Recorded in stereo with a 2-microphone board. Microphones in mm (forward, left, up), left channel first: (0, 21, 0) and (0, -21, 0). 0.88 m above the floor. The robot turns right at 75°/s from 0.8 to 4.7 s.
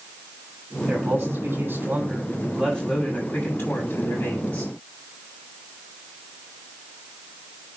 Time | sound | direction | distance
0.9 | a man speaking | 135° right | 7.5 m